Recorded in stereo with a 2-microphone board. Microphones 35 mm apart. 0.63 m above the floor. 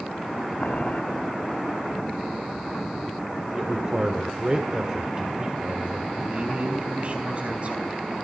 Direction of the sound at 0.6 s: 45° left (ahead or behind).